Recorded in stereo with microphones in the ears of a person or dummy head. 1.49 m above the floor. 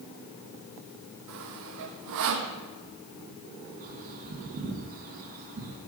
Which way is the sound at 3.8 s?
40° right (ahead or behind).